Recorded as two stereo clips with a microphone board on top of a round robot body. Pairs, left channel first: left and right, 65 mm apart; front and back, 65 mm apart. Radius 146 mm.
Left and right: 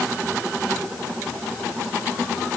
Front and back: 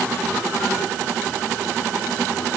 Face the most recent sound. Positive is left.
No sound to turn to.